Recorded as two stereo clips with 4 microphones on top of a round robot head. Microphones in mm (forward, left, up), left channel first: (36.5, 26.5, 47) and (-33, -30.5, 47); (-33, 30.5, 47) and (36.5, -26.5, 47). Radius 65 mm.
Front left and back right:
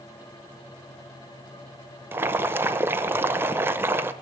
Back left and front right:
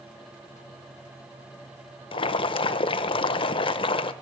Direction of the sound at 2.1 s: 155° left.